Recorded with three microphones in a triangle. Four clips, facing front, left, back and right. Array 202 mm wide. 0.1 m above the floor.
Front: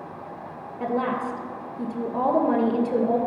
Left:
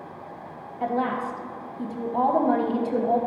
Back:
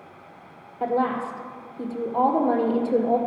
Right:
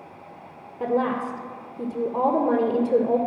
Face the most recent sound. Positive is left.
turn(degrees=-65)